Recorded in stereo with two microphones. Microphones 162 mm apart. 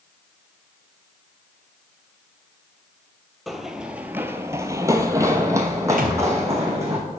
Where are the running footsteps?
Centre (ahead or behind), 0.7 m; by 7.0 s 20° right (ahead or behind), 1.8 m.